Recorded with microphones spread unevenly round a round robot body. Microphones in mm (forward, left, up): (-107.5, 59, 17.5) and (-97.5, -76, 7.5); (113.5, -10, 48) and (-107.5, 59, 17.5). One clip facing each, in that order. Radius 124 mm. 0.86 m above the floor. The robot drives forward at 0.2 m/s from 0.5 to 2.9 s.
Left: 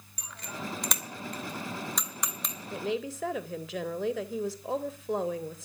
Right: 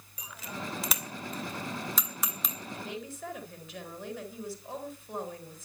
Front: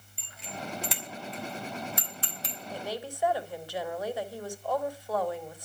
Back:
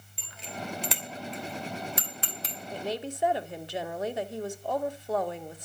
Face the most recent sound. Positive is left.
turn(degrees=95)